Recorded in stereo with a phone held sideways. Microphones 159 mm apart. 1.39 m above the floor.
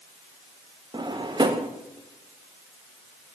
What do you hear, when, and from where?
0.9 s a drawer: 30° right (ahead or behind), 0.6 m